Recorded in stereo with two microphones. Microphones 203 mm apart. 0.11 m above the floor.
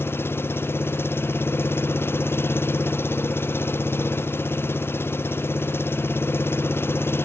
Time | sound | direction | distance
0.0 | an engine running | 10° left (ahead or behind) | ?